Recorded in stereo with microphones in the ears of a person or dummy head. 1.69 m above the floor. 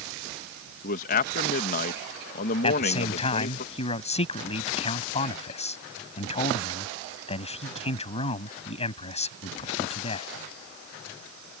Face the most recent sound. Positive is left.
turn(degrees=35)  # may be behind; listen again after turning